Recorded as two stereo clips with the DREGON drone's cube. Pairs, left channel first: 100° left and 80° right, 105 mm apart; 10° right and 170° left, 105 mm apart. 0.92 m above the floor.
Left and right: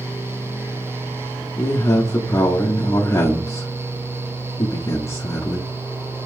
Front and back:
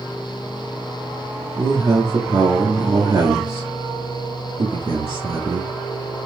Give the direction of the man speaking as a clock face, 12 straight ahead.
7 o'clock.